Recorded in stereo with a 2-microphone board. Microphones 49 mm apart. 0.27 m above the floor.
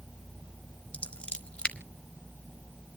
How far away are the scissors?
About 1.2 m.